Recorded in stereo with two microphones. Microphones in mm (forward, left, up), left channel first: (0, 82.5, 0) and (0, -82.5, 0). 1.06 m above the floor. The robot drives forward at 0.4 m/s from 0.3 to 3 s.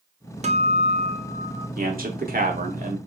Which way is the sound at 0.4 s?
45° right (ahead or behind).